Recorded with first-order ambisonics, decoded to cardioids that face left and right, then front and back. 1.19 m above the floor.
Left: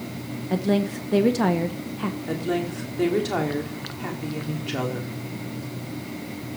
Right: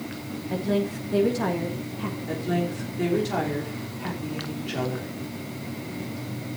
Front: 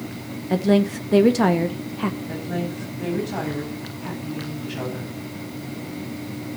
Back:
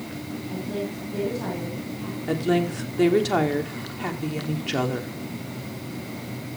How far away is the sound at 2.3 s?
About 3 m.